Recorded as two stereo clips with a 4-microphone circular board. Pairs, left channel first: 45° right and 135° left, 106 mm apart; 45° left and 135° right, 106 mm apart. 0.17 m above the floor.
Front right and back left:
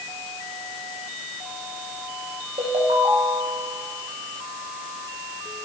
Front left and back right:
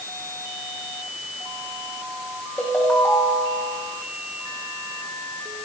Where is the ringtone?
120° left, 5 m.